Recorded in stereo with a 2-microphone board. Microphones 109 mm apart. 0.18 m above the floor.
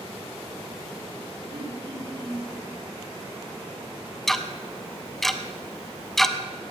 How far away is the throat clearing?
About 6 m.